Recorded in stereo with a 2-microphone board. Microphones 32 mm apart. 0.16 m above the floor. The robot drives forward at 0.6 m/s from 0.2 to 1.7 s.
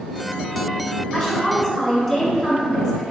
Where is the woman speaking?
5° left (ahead or behind), 1.1 m.